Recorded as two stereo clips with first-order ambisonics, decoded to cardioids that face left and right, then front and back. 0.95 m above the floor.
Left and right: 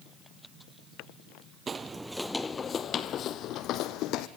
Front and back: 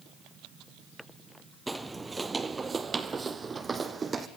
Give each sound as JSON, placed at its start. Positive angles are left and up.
{"t": 1.7, "sound": "footsteps", "azimuth_deg": -105, "distance_m": 1.0}